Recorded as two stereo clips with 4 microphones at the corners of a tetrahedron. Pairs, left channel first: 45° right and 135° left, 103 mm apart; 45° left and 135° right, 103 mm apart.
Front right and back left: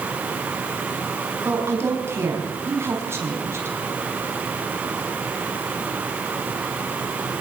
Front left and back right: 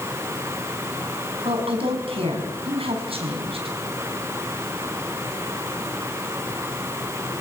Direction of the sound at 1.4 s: 160° right.